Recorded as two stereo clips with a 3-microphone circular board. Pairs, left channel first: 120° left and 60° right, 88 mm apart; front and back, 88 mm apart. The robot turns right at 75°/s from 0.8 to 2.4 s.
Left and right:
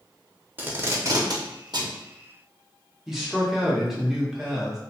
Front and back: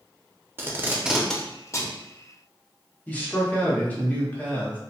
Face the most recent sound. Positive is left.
turn(degrees=15)